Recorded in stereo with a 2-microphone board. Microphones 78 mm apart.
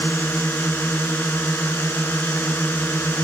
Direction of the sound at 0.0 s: 25° left (ahead or behind).